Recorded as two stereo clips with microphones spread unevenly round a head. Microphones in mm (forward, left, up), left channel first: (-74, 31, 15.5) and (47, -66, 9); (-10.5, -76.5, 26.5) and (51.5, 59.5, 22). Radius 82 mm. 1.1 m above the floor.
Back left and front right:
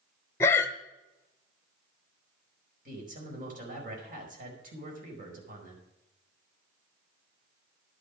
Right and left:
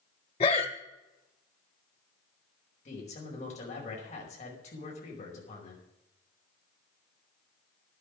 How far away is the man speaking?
About 5 m.